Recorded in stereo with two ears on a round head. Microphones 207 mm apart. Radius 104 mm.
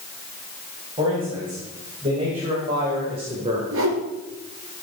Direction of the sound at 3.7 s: 65° right (ahead or behind).